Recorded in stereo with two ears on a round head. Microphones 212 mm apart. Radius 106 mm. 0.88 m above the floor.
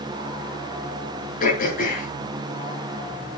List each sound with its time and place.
1.4 s throat clearing: 35° left (ahead or behind), 7 m